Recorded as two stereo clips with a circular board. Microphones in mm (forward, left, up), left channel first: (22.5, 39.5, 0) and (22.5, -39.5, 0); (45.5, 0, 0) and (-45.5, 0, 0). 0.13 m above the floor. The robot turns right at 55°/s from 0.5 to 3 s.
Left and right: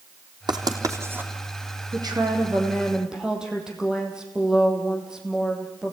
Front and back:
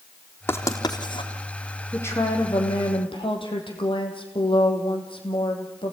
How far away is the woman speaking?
About 5 m.